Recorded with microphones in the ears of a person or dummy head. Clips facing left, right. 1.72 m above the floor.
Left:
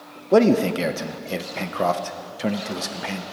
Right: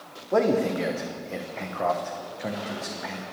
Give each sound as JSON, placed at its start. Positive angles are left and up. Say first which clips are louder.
{"t": 0.3, "sound": "a man speaking", "louder": "left 6 dB", "side_deg": 45, "distance_m": 0.6}